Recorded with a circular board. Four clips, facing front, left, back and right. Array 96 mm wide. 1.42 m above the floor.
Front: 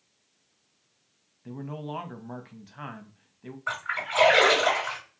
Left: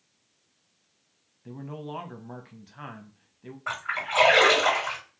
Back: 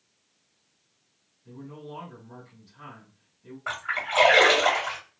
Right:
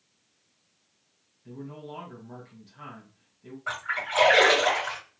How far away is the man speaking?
About 0.7 m.